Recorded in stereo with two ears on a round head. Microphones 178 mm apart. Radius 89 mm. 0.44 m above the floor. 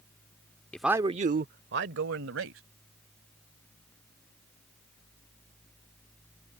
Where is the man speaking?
5° left (ahead or behind); by 2.6 s 70° right (ahead or behind).